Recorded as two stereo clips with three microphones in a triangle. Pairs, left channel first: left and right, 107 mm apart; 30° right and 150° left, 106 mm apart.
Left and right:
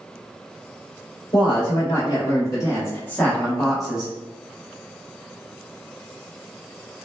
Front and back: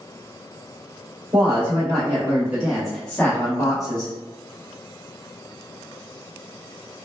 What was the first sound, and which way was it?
A woman speaking, 115° left.